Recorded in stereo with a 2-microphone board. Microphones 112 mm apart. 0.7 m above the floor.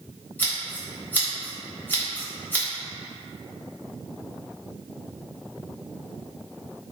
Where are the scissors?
20° left (ahead or behind), 1.3 m.